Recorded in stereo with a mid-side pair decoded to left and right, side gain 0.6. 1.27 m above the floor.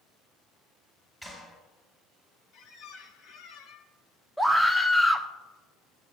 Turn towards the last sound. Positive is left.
turn(degrees=0)